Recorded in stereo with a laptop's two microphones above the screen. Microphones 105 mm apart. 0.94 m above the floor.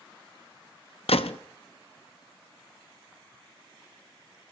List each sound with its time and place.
1.1 s a gunshot: 85° left, 0.6 m